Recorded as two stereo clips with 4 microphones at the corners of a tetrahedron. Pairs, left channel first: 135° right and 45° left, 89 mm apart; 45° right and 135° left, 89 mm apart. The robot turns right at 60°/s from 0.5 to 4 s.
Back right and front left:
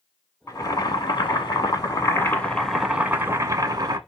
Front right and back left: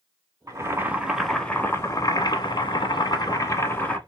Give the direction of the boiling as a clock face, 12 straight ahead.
6 o'clock.